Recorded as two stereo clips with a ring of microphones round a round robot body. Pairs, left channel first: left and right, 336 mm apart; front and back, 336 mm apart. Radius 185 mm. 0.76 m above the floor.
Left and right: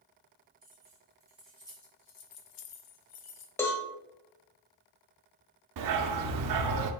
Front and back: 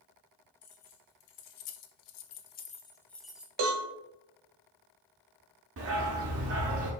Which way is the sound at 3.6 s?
175° left.